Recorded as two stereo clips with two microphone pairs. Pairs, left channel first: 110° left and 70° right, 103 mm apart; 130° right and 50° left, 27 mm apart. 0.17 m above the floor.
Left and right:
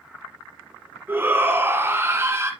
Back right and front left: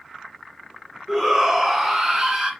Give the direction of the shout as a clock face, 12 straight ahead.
1 o'clock.